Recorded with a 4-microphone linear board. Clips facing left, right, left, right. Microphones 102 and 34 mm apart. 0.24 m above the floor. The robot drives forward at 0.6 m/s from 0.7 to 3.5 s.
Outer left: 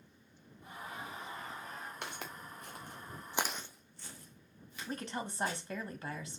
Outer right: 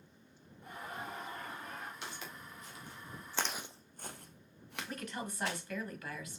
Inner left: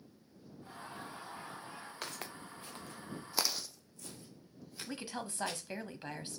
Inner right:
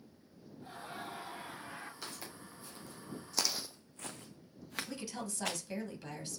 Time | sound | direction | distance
0.6 | laughter | 50° right (ahead or behind) | 4 m
2.0 | footsteps | 55° left (ahead or behind) | 2.5 m
4.9 | a woman speaking | 30° left (ahead or behind) | 1.3 m